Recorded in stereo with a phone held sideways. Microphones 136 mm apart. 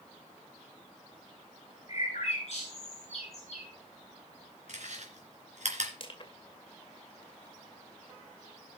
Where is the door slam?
I don't hear a door slam.